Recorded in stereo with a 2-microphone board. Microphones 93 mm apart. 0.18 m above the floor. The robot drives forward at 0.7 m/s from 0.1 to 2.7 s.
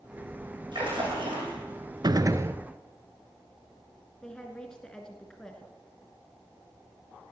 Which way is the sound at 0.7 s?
55° right (ahead or behind).